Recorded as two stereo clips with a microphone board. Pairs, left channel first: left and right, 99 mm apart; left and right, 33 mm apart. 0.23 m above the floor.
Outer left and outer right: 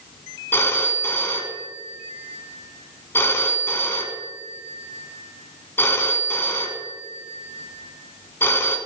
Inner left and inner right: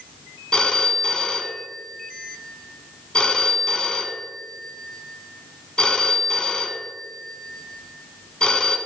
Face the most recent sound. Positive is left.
turn(degrees=25)  # may be behind; listen again after turning